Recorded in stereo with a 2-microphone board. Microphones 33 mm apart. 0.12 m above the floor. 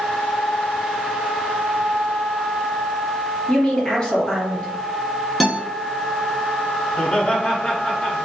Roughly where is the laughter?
Centre.